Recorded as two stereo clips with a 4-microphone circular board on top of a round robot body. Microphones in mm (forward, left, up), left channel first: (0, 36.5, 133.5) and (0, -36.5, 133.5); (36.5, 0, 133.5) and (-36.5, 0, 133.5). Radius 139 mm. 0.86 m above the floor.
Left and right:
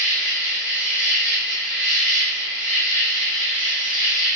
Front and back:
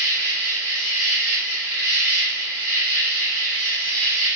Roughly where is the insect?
Behind right.